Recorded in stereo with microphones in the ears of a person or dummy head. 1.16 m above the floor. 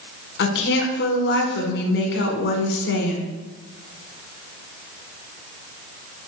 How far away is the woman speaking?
About 0.9 m.